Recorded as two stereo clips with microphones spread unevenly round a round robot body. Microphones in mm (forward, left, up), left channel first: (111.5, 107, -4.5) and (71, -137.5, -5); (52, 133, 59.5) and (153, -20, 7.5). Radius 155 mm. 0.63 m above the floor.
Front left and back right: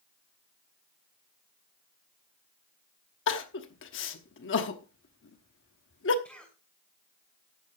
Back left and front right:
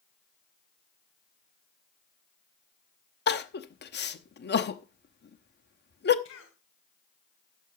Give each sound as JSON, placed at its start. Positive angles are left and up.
{"t": 3.3, "sound": "crying", "azimuth_deg": 100, "distance_m": 1.0}
{"t": 6.2, "sound": "a cough", "azimuth_deg": 165, "distance_m": 2.5}